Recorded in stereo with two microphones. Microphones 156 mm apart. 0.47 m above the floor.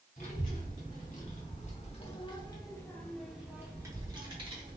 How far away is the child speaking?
About 1.8 m.